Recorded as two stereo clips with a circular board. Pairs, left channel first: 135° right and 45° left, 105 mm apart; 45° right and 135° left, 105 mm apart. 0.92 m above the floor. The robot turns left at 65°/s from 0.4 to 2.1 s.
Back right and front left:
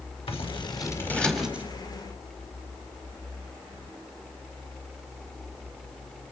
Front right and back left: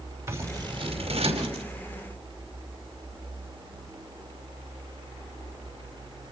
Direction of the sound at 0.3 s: 160° right.